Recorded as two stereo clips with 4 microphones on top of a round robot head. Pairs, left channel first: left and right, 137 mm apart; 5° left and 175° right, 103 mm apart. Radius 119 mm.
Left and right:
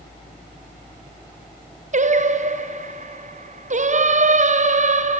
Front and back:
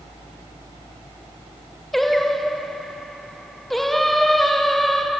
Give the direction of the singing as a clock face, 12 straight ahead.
3 o'clock.